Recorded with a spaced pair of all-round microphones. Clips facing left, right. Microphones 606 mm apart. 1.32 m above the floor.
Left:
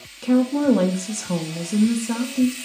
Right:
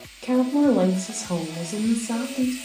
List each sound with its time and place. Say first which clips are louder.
0.2 s a woman speaking: left 1 dB; 45° left (ahead or behind), 0.6 m